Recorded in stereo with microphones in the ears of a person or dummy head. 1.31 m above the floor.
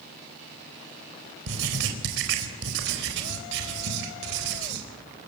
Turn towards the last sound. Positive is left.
turn(degrees=-75)  # may be behind; listen again after turning